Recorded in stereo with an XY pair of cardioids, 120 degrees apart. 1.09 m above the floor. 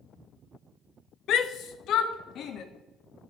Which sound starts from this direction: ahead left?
A shout, at 1.3 s.